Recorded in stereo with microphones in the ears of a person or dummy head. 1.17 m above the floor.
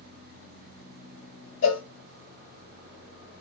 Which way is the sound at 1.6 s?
60° left (ahead or behind).